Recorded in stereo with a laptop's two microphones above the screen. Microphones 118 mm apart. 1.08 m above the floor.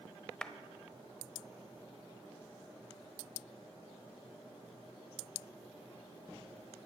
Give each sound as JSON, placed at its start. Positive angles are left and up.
{"t": 0.4, "sound": "a clap", "side_deg": 5, "distance_m": 0.8}